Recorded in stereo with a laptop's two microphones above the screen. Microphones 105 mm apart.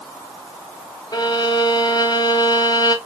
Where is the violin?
45° left (ahead or behind), 0.6 m.